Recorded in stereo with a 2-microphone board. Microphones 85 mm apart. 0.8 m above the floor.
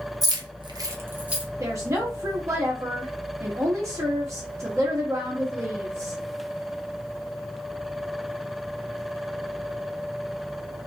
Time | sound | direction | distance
0.2 | keys jangling | 45° right (ahead or behind) | 0.7 m
1.6 | a woman speaking | 35° right (ahead or behind) | 0.9 m